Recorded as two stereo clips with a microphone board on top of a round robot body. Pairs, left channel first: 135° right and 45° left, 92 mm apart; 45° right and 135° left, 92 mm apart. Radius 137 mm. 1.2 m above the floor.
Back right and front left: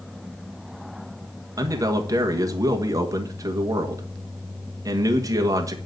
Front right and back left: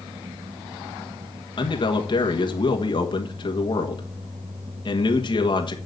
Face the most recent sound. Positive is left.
turn(degrees=-10)